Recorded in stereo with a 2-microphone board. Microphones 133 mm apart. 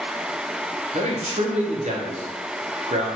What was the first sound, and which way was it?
A man speaking, 60° right (ahead or behind).